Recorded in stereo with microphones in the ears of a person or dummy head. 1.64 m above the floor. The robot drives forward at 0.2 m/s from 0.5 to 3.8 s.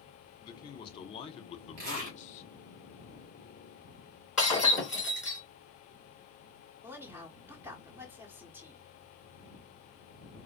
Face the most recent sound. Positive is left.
turn(degrees=-10)  # may be behind; listen again after turning